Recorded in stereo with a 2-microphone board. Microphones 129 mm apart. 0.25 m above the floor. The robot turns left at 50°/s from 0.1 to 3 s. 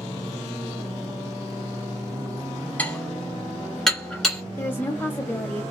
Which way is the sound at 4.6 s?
15° left (ahead or behind).